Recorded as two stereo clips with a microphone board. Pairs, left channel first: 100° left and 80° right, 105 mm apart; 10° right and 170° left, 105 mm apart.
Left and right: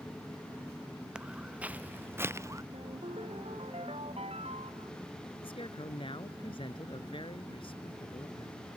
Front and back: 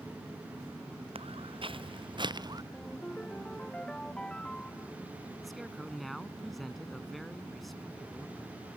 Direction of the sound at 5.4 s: 80° left.